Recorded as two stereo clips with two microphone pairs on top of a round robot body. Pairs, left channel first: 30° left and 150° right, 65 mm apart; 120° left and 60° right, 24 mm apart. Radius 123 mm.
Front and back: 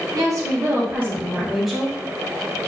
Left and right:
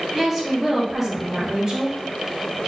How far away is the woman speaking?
About 1.0 m.